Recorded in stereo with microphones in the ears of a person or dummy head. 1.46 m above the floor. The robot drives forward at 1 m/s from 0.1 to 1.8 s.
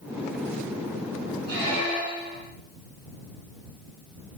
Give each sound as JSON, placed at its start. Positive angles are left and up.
{"t": 1.5, "sound": "a squeak", "side_deg": -60, "distance_m": 1.8}